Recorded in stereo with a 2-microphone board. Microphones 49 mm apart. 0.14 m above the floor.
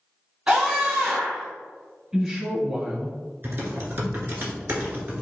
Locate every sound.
0.5 s a scream: 20° right (ahead or behind), 1.5 m
2.1 s a woman speaking: 15° right (ahead or behind), 1.5 m
3.4 s typing on a keyboard: 50° right (ahead or behind), 1.3 m